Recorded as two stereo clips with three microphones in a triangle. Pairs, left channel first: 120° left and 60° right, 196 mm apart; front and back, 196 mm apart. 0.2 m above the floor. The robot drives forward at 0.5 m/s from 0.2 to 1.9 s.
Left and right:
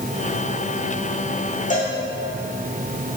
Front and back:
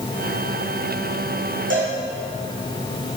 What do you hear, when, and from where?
1.7 s a cowbell: 170° left, 2.5 m